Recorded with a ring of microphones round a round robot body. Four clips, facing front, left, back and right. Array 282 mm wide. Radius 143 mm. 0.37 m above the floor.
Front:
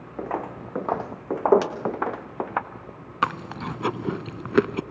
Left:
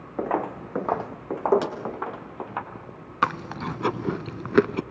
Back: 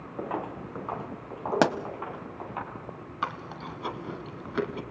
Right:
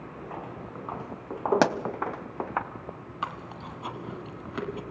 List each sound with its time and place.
0.2 s footsteps: 80° left, 1.3 m; by 2.6 s 20° right, 1.8 m
1.6 s a pop: 130° right, 1.0 m
3.2 s chewing: 50° left, 0.7 m